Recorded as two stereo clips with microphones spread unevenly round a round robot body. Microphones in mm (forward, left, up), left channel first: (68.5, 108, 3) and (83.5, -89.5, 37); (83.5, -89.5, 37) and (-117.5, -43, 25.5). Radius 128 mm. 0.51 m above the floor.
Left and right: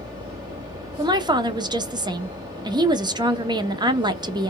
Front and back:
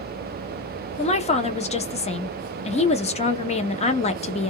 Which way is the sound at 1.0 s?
20° right.